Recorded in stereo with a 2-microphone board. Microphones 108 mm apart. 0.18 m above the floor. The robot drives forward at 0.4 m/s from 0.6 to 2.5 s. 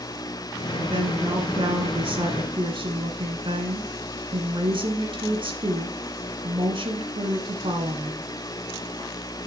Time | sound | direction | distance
0.8 | a woman speaking | 45° right (ahead or behind) | 1.7 m